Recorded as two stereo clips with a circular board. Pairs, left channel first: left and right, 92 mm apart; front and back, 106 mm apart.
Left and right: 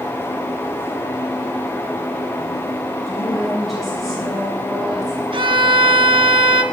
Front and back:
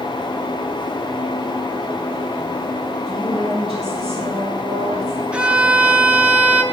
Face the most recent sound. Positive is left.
turn(degrees=-100)